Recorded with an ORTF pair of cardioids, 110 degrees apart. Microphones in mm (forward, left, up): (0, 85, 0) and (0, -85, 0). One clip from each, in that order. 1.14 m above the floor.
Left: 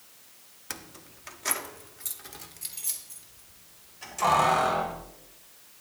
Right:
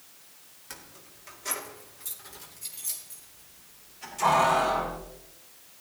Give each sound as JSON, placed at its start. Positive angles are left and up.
{"t": 0.7, "sound": "keys jangling", "azimuth_deg": 45, "distance_m": 1.0}